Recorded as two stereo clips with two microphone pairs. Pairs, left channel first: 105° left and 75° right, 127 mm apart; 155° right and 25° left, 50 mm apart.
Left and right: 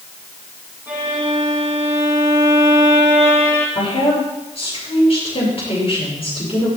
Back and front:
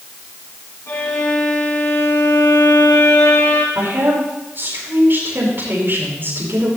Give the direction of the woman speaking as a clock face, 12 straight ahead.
10 o'clock.